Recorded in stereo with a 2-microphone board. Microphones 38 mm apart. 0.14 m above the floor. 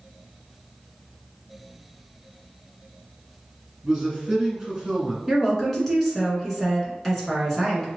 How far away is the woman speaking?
About 1.4 m.